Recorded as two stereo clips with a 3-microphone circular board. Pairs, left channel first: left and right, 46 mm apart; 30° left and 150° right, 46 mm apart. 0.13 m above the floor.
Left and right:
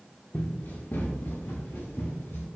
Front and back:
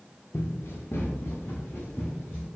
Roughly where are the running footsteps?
Ahead left.